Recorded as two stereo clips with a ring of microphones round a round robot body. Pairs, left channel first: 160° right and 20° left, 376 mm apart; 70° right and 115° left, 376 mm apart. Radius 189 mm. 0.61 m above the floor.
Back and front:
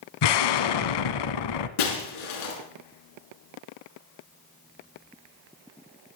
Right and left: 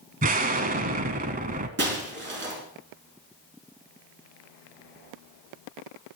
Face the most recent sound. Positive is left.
turn(degrees=175)